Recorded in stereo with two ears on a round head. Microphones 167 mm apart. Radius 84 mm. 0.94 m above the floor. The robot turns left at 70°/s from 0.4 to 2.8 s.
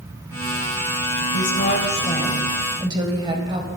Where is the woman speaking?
80° left, 4 m; by 3.7 s 25° right, 4 m.